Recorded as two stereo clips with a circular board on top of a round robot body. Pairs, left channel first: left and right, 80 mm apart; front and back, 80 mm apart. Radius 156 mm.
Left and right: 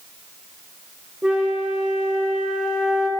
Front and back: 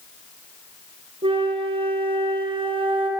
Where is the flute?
170° right, 8 m.